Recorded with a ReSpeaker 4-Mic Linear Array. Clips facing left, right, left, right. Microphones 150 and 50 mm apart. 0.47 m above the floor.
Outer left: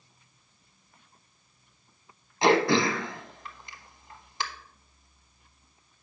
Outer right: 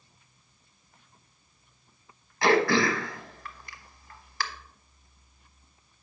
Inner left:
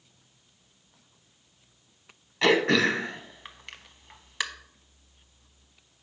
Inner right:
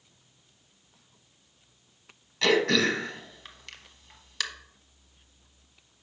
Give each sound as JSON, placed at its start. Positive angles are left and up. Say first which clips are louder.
{"t": 2.4, "sound": "throat clearing", "louder": "outer left 1 dB, inner left 2 dB", "side_deg": 20, "distance_m": 0.9}